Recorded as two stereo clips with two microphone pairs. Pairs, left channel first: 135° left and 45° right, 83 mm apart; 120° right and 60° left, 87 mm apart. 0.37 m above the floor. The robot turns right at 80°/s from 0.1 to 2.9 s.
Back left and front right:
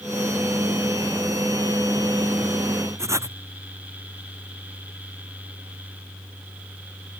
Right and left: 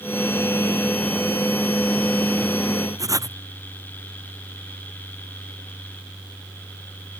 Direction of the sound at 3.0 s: 10° left.